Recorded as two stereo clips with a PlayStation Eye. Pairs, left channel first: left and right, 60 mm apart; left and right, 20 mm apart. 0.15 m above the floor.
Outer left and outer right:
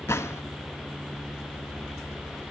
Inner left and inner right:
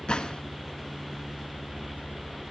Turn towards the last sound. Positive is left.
turn(degrees=50)  # may be behind; listen again after turning